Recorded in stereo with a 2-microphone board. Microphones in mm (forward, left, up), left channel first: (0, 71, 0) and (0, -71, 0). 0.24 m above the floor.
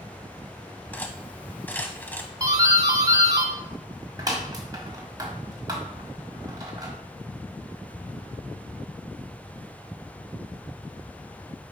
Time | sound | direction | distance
0.9 | cutlery clinking | 10° left (ahead or behind) | 0.8 m
2.4 | a doorbell | 30° right (ahead or behind) | 1.5 m